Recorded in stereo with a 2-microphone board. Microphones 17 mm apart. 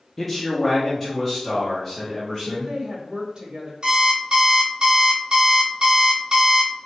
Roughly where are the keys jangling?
I don't hear keys jangling.